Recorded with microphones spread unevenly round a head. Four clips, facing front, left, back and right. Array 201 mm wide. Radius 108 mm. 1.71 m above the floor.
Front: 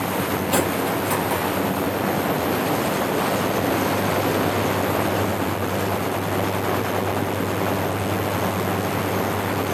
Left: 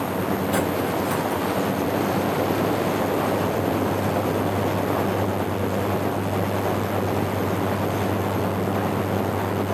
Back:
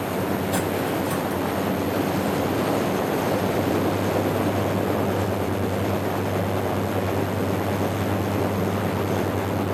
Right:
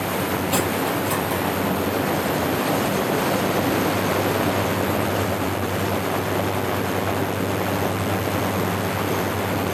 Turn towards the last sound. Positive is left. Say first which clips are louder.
# even, front 2 dB
turn(degrees=-5)